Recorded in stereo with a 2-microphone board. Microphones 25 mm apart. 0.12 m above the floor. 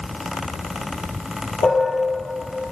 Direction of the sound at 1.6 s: 60° left (ahead or behind).